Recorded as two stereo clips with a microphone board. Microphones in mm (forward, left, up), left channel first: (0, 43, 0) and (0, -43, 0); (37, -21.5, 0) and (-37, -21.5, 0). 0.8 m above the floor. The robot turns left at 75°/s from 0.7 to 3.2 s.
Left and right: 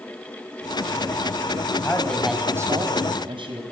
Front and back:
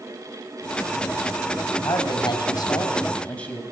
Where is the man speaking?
30° left, 4.5 m; by 3.6 s 75° right, 4.5 m.